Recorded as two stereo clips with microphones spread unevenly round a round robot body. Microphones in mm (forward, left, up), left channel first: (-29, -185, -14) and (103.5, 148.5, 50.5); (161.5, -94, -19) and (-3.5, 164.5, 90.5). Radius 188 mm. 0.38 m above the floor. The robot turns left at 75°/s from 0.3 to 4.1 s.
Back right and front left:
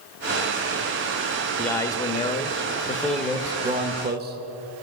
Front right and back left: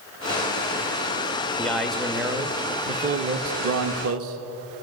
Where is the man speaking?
55° right, 0.8 m; by 4.8 s 115° left, 0.8 m.